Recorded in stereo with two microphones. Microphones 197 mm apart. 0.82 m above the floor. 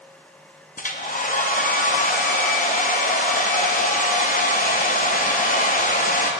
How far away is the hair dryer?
About 0.5 m.